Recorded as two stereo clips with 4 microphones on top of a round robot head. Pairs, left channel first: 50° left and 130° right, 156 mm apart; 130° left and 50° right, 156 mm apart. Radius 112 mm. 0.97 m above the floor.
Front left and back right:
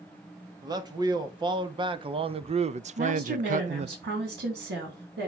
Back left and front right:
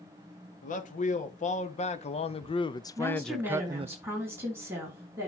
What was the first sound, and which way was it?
A man speaking, 165° left.